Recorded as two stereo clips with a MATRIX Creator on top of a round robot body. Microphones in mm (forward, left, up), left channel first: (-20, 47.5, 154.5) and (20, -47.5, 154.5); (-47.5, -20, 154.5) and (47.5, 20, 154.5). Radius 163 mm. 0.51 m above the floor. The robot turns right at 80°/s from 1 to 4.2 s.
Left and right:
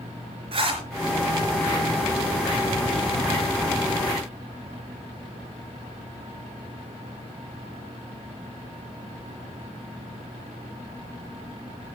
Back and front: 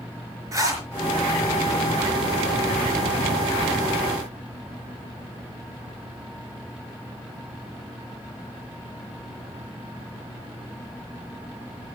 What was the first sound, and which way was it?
A zipper, 40° right.